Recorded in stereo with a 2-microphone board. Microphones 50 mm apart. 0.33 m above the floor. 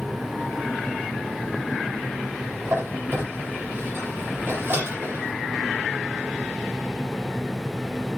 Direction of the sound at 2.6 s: 45° right (ahead or behind).